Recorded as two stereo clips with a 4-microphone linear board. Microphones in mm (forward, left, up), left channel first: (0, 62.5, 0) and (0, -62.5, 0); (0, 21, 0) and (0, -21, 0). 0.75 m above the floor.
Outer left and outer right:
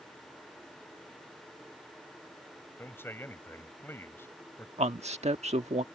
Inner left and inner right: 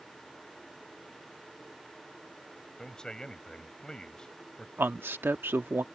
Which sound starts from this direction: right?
A man speaking, at 4.8 s.